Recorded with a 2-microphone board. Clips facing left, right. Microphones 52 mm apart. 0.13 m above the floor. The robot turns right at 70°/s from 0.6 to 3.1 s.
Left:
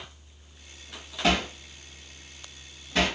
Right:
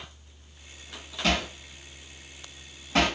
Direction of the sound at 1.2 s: 25° left (ahead or behind).